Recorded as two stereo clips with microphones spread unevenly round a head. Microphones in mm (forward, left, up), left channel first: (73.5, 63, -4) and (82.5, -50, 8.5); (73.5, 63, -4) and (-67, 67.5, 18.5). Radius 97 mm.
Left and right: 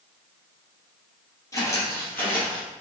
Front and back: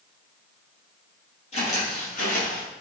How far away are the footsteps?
About 2.0 m.